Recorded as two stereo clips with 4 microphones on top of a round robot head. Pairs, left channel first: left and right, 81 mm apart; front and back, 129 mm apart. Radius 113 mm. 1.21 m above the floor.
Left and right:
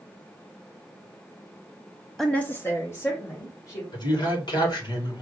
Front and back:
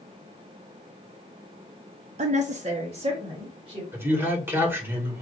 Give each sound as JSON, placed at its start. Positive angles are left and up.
{"t": 2.2, "sound": "a woman speaking", "azimuth_deg": 175, "distance_m": 0.6}
{"t": 3.9, "sound": "a man speaking", "azimuth_deg": 105, "distance_m": 2.5}